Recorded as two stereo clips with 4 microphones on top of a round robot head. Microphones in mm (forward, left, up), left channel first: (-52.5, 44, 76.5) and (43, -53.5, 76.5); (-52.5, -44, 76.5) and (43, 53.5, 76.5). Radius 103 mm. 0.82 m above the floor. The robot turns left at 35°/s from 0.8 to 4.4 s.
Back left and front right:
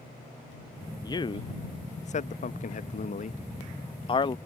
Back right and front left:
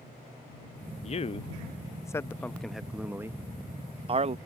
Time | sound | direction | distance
1.0 | a man speaking | 165° right | ?